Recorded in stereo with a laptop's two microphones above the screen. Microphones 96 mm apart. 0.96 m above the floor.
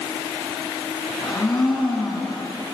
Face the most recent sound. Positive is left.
turn(degrees=45)  # may be behind; listen again after turning